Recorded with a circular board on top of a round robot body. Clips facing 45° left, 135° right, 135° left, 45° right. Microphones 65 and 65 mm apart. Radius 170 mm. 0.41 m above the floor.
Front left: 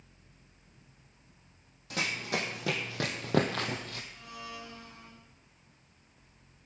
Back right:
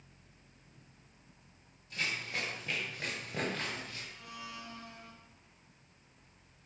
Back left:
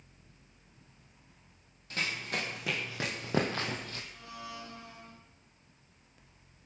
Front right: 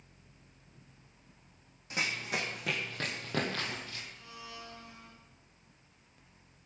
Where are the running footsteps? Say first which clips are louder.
Front left 4 dB, front right 1 dB; 30° left, 1.7 m; by 4.0 s 85° left, 1.3 m.